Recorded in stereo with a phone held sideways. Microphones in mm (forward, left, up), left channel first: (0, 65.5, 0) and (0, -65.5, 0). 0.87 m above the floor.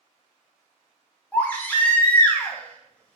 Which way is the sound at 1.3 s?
15° left (ahead or behind).